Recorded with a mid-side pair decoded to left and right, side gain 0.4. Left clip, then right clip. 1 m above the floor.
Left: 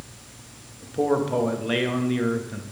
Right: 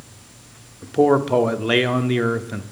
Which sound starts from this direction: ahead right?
A man speaking, at 0.8 s.